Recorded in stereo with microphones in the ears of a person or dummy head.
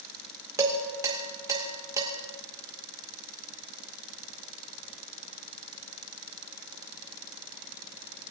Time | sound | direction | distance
0.6 | dishes clattering | 20° right (ahead or behind) | 2.5 m